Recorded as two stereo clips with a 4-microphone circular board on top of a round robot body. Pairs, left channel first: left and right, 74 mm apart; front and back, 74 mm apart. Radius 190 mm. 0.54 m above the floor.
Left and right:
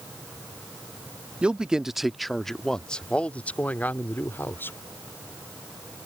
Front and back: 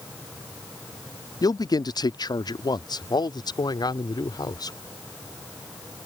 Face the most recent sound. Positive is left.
turn(degrees=30)